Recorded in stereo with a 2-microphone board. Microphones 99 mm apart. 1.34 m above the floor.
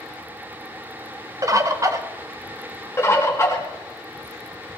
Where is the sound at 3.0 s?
25° left (ahead or behind), 2 m.